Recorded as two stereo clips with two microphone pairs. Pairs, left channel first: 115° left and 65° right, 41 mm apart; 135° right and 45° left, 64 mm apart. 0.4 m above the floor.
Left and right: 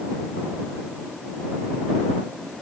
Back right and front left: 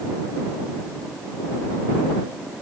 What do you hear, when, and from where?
Only background noise.